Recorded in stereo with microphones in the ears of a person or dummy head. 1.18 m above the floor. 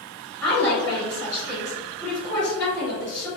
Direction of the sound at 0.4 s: 15° left (ahead or behind).